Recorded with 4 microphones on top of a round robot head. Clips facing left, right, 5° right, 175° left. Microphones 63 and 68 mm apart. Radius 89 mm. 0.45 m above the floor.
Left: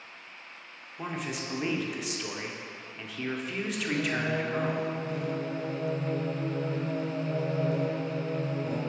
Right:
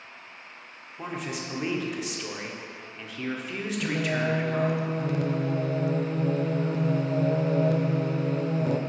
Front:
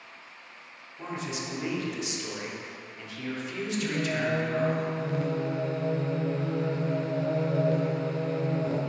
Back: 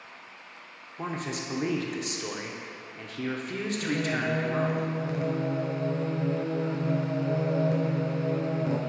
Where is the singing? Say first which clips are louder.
Right 3 dB, back 1 dB; 110° right, 0.6 m.